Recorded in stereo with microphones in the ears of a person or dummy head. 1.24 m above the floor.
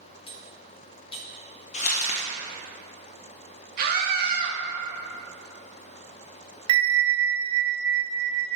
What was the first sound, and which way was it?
Cutlery clinking, 30° left (ahead or behind).